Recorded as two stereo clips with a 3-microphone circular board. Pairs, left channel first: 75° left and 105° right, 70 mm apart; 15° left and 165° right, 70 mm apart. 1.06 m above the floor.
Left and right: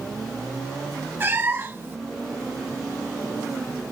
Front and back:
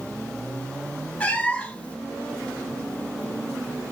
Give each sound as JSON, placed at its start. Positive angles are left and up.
{"t": 1.2, "sound": "a cat meowing", "azimuth_deg": -50, "distance_m": 0.6}